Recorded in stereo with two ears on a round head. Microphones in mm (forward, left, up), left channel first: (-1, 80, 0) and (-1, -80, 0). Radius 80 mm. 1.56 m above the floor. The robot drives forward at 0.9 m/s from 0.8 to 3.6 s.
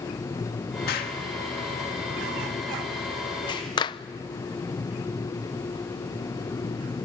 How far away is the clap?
About 0.6 m.